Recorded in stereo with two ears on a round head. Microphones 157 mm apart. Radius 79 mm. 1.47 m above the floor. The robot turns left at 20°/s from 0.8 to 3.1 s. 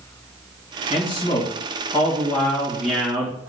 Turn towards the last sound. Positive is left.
turn(degrees=-10)